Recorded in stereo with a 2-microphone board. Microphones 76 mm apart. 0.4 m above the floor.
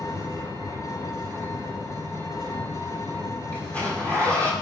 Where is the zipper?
20° left (ahead or behind), 7.5 m.